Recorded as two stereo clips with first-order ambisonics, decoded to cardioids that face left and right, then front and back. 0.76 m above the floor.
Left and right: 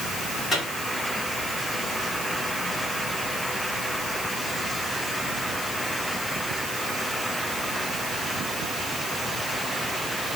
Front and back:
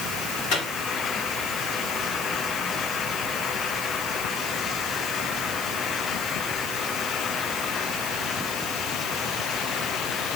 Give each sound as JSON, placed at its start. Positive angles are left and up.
{"t": 0.5, "sound": "a microwave", "azimuth_deg": 5, "distance_m": 2.5}